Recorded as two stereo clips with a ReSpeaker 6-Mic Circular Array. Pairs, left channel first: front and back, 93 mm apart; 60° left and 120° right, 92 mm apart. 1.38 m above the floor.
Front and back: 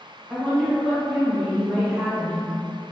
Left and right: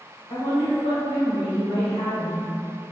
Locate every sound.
0.3 s a woman speaking: 80° left, 1.7 m